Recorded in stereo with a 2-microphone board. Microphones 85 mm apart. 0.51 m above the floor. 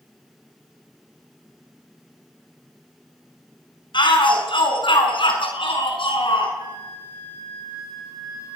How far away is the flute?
About 6 m.